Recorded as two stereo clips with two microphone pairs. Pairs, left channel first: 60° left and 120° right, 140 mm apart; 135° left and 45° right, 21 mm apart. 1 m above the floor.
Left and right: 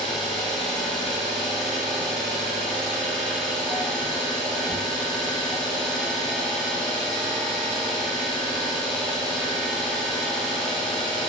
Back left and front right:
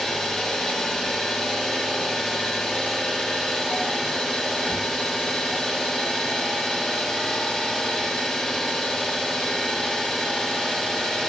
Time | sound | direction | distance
0.0 | an engine running | 150° left | 1.0 m